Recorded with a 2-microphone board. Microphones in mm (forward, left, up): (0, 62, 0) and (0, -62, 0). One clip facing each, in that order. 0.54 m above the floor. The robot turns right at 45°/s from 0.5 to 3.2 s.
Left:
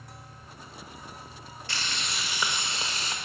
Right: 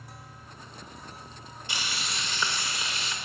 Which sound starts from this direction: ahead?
Frying, at 1.7 s.